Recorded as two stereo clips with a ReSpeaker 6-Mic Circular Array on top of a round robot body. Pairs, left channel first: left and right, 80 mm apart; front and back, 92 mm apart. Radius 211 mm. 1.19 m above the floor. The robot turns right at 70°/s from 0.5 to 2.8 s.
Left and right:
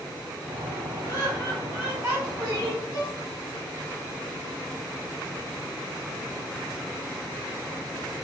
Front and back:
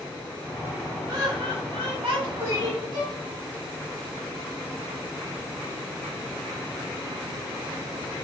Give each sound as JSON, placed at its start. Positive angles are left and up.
{"t": 1.1, "sound": "laughter", "azimuth_deg": 135, "distance_m": 1.2}
{"t": 2.9, "sound": "a violin", "azimuth_deg": 135, "distance_m": 0.6}